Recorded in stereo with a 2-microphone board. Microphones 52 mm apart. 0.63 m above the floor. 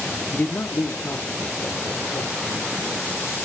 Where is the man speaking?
30° left (ahead or behind), 0.7 m; by 3.2 s 75° left (ahead or behind), 3 m.